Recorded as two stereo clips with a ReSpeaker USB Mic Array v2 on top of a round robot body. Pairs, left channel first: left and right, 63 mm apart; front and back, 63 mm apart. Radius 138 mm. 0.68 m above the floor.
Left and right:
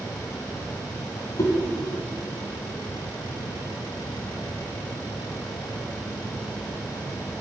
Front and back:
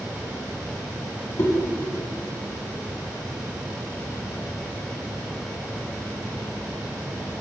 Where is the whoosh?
50° left, 2.5 m.